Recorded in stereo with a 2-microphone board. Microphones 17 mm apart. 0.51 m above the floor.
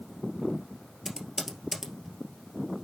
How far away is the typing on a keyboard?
About 2.0 m.